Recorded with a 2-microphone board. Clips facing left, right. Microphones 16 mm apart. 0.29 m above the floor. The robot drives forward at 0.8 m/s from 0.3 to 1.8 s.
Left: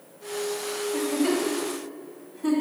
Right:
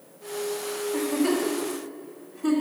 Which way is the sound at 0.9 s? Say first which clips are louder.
Even; 10° left (ahead or behind).